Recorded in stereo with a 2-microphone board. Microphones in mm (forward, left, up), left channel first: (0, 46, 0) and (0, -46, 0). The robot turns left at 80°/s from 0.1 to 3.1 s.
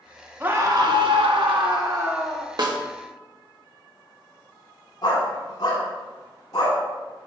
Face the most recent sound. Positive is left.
turn(degrees=45)  # may be behind; listen again after turning